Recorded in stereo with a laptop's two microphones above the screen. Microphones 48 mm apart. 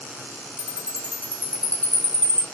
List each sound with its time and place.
0.6 s a chime: 30° left (ahead or behind), 0.8 m